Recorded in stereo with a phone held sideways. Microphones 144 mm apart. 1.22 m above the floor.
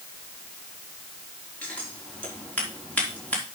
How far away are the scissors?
About 3.5 m.